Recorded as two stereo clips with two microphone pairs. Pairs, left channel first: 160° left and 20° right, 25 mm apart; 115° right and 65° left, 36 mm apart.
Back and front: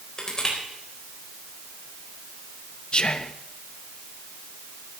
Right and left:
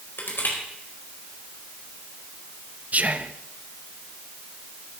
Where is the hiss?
No hiss in this recording.